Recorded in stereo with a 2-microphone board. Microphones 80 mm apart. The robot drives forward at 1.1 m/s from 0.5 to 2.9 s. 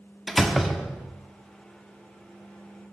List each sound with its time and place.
0.3 s a door slam: centre (ahead or behind), 1.0 m